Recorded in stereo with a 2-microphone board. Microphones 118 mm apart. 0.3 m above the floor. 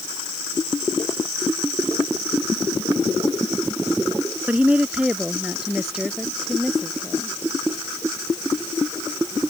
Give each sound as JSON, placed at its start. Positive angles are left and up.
{"t": 4.5, "sound": "a woman speaking", "side_deg": -10}